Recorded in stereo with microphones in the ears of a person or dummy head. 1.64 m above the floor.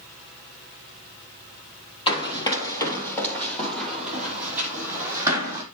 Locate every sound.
2.1 s running footsteps: 30° left (ahead or behind), 3 m; by 5.6 s 20° right (ahead or behind), 4 m